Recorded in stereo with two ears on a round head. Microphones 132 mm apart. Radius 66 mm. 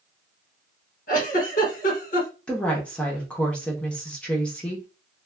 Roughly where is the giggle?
Left.